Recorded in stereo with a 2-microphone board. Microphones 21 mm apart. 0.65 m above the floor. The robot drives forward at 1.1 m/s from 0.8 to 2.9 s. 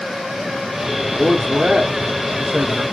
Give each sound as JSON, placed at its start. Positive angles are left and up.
{"t": 1.1, "sound": "a man speaking", "side_deg": -40, "distance_m": 2.5}